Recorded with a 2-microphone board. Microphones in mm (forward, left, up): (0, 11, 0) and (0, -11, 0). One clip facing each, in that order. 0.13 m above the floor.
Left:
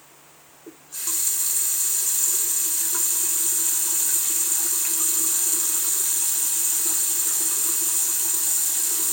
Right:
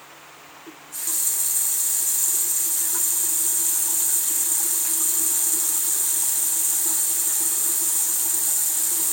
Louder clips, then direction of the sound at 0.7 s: Left 1 dB; 20° left (ahead or behind).